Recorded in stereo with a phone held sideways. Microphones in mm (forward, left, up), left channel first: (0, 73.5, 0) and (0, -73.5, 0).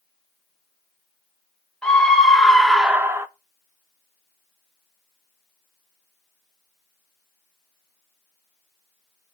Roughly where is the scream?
Centre.